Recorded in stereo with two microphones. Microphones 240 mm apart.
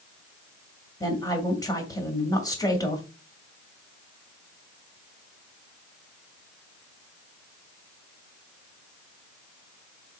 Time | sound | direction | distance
1.0 | a woman speaking | 15° left (ahead or behind) | 2 m